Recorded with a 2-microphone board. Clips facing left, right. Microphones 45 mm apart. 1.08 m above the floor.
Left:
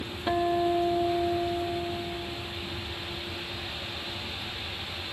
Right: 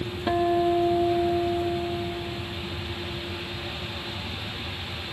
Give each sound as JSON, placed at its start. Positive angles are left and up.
{"t": 0.3, "sound": "a guitar", "side_deg": -5}